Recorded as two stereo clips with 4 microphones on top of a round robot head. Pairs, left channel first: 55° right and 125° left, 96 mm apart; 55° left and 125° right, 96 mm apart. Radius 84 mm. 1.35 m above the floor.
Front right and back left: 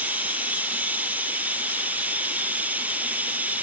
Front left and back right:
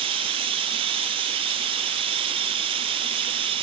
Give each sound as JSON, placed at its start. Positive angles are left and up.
{"t": 0.0, "sound": "running water", "azimuth_deg": -160}